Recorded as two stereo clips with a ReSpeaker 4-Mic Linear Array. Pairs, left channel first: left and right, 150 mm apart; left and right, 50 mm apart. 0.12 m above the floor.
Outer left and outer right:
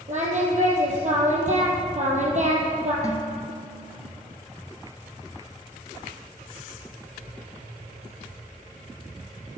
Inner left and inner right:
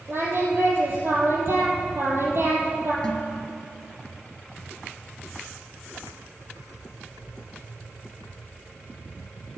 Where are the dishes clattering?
20° left (ahead or behind), 1.4 m.